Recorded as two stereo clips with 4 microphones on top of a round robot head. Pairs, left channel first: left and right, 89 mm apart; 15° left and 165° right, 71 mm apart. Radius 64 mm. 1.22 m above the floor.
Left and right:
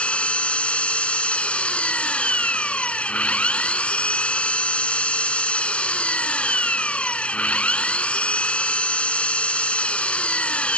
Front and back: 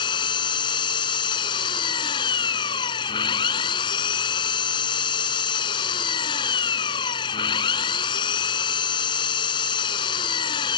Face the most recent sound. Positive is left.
turn(degrees=15)